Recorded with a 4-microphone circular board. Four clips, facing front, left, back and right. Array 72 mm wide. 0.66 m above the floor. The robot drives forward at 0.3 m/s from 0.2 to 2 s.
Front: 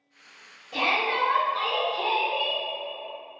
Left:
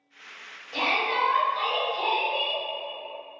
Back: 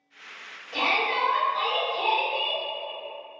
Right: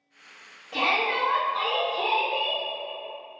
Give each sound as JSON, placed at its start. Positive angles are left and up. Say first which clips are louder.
{"t": 0.7, "sound": "a shout", "louder": "right 1 dB, even", "azimuth_deg": -80, "distance_m": 1.3}